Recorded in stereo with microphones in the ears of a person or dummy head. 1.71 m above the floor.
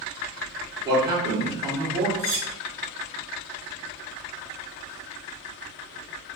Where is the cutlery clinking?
20° right (ahead or behind), 1.5 m.